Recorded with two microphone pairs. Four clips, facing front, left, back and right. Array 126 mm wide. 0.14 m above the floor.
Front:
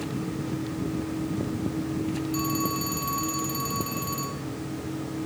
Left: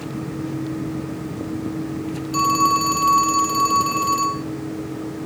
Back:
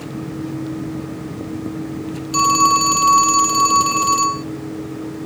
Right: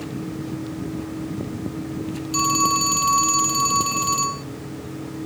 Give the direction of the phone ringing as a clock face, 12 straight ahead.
6 o'clock.